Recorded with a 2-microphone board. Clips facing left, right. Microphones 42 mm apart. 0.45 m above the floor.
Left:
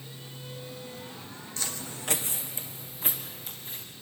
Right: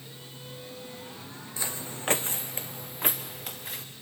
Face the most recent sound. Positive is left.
turn(degrees=-65)  # may be behind; listen again after turning